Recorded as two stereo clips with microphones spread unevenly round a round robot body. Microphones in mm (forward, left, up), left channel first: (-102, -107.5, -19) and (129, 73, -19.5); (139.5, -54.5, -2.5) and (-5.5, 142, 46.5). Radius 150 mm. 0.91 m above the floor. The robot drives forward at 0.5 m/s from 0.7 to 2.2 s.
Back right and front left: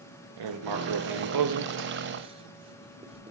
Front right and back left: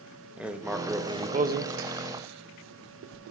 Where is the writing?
35° left, 0.8 m; by 3.3 s 110° left, 0.5 m.